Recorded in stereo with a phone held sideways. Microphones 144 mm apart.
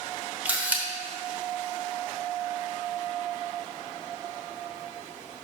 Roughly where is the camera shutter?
Centre.